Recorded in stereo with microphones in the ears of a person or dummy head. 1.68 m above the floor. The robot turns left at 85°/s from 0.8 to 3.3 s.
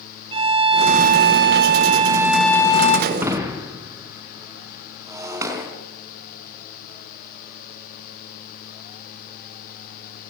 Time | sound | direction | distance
0.3 | a violin | 45° right | 1.7 m
3.1 | breaking glass | 5° right (ahead or behind) | 5 m